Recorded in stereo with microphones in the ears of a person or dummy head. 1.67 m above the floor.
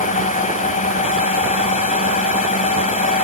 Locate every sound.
0.0 s a drone: 30° left (ahead or behind)